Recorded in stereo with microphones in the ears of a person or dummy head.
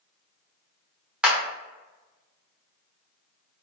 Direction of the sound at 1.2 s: 5° right (ahead or behind).